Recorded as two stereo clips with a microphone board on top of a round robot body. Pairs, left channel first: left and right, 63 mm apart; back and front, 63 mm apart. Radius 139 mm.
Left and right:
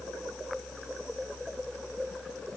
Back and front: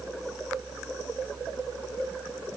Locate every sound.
Only background noise.